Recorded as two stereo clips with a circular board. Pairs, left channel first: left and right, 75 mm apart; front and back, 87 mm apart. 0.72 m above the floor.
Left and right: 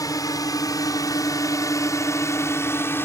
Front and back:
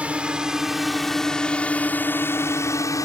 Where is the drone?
110° left; by 3.1 s 35° left.